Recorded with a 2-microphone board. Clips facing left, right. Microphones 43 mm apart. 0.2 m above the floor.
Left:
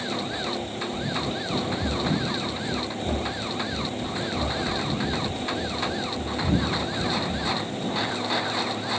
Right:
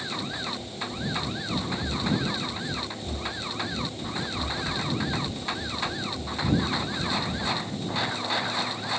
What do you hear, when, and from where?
0.3 s running footsteps: 45° left (ahead or behind); by 7.6 s 5° left (ahead or behind)